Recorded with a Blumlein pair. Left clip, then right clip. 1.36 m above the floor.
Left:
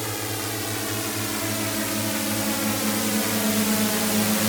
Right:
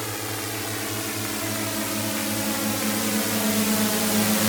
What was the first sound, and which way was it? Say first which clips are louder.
A drone: left 1 dB; 5° left.